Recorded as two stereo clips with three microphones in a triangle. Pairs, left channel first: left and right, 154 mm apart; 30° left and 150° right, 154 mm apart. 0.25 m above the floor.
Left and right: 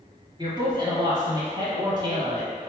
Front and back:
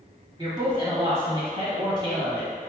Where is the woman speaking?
120° right, 1.2 m.